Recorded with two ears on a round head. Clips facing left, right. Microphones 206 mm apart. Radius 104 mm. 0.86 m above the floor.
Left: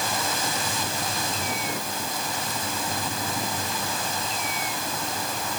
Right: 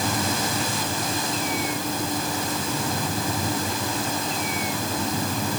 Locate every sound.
Only background noise.